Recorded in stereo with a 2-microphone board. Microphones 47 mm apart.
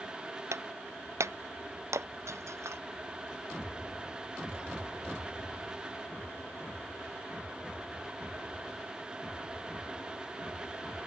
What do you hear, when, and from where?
0.5 s breaking glass: 75° right (ahead or behind)